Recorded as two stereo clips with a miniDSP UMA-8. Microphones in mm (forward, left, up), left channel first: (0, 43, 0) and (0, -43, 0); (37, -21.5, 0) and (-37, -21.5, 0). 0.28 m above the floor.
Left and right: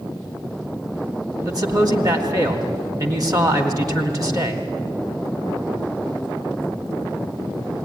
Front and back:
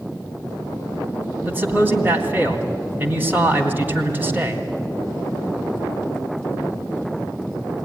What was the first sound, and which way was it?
A man speaking, 120° right.